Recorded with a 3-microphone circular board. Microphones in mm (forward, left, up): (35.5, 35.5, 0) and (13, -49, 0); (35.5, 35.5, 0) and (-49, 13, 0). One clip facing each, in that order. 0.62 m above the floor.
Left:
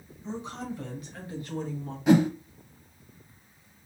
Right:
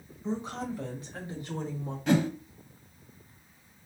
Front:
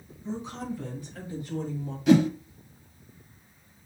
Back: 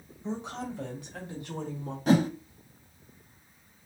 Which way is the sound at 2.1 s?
150° left.